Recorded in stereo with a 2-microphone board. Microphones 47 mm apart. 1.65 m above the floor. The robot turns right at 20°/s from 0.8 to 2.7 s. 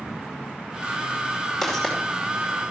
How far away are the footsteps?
About 5.5 m.